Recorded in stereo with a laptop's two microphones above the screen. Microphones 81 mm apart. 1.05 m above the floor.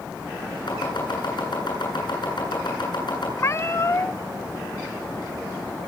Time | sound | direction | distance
0.7 | chopping | 65° left (ahead or behind) | 10 m
3.4 | a cat meowing | 35° left (ahead or behind) | 0.8 m